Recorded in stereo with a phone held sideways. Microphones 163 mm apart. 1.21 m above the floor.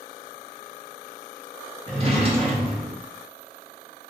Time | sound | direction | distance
1.9 | a drawer | 35° right (ahead or behind) | 0.9 m